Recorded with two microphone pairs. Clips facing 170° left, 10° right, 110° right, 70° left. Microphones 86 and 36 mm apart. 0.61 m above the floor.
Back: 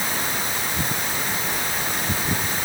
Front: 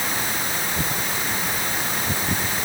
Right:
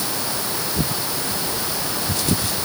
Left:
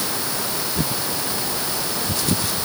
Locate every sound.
Only background noise.